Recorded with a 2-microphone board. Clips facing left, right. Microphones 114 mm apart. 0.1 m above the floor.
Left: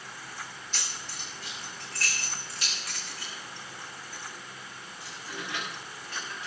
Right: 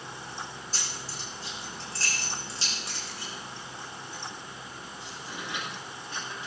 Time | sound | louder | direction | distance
0.7 | keys jangling | right 2 dB | 35° right (ahead or behind) | 4 m